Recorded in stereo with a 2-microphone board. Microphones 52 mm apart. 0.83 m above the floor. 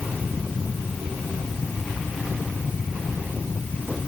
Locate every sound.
Only background noise.